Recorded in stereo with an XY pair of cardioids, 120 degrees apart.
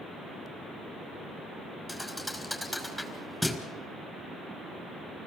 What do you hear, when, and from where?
1.9 s a thud: straight ahead, 5 m